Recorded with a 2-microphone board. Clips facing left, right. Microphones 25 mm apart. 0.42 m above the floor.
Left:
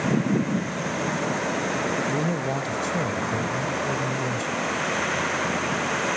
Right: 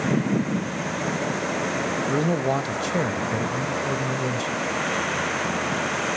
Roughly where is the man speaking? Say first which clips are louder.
Right 3 dB; right.